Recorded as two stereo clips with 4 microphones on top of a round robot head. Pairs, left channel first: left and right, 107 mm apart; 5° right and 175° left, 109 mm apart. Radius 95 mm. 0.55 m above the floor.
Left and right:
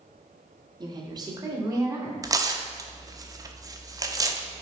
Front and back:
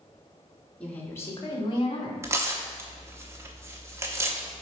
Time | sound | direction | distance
0.8 | a woman speaking | 80° right | 1.4 m
2.2 | tearing paper | 130° right | 0.9 m